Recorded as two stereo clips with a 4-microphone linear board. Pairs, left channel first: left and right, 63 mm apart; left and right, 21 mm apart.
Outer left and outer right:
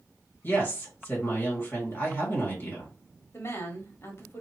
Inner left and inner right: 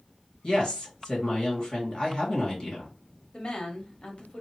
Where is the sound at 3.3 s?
40° left (ahead or behind), 1.1 m.